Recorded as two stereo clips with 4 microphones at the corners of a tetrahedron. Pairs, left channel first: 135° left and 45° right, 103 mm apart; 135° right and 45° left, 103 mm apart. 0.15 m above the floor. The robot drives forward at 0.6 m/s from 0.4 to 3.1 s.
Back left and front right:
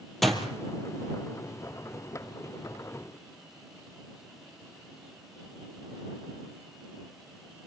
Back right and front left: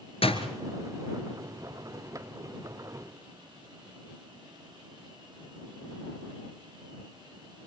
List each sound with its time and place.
0.2 s a door slam: 135° right, 3 m; by 0.5 s 140° right, 3 m